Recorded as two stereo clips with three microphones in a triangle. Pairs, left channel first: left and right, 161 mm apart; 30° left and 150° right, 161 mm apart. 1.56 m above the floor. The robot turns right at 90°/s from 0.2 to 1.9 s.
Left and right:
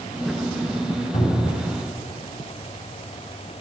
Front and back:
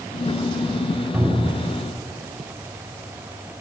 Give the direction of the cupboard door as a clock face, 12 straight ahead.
8 o'clock.